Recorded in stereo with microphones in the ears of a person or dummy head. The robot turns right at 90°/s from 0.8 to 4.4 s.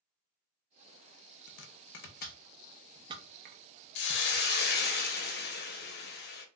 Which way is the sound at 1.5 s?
50° left (ahead or behind).